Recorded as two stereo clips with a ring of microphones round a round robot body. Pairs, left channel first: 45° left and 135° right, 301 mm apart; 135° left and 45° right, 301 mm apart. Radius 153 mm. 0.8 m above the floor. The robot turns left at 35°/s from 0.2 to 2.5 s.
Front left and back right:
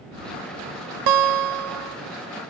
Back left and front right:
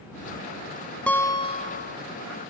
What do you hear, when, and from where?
1.1 s a guitar: 140° right; by 2.0 s 170° right